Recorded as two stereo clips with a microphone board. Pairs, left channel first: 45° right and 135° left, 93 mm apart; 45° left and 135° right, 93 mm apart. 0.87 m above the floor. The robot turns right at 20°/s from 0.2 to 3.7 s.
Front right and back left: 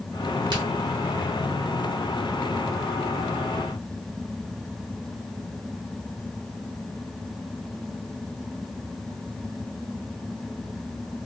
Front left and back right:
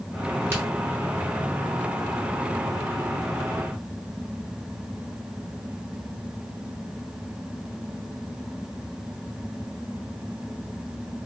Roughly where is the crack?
Behind.